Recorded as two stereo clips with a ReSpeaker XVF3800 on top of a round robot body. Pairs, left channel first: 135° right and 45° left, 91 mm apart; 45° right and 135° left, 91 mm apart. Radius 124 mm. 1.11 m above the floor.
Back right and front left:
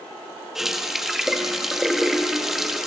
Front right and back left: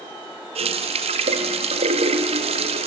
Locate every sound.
0.6 s a running tap: 130° left, 1.0 m